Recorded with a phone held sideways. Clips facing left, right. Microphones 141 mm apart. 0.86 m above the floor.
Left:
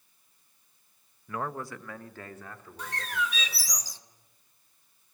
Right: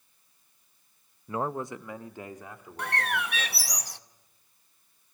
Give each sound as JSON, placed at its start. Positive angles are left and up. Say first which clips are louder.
{"t": 1.3, "sound": "a man speaking", "louder": "right 4 dB", "side_deg": -25, "distance_m": 0.6}
{"t": 2.8, "sound": "a bird", "louder": "right 3 dB", "side_deg": -65, "distance_m": 0.7}